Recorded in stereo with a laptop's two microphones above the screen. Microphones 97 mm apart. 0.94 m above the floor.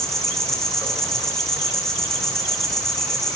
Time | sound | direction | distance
0.0 | an insect | 5° left (ahead or behind) | 6 m